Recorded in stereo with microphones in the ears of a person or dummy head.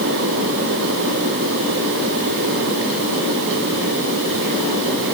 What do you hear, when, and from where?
Only background noise.